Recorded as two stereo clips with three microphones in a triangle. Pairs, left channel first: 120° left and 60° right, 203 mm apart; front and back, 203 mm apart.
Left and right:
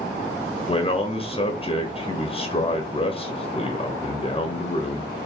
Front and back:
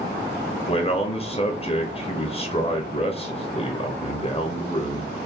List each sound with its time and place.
0.7 s a man speaking: 55° left, 0.7 m